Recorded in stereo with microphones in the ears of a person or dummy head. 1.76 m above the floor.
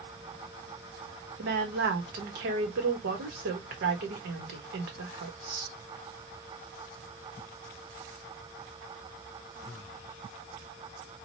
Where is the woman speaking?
55° right (ahead or behind), 1.2 m.